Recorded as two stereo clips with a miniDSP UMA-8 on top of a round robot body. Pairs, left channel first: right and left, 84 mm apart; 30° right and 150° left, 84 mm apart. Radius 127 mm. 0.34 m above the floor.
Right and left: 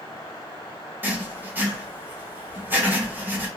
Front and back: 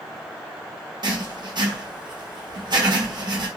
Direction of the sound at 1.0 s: 155° left.